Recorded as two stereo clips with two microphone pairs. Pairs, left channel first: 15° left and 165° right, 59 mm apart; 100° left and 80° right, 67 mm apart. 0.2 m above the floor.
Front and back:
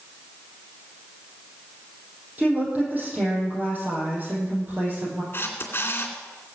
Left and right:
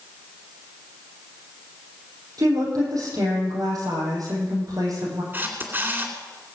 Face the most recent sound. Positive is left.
turn(degrees=-30)